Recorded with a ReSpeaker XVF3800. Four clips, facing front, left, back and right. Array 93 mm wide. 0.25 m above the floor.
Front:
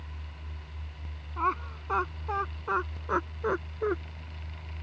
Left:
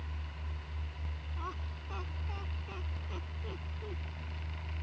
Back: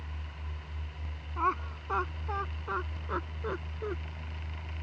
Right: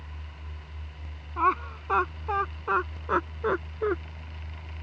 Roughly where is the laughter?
Right.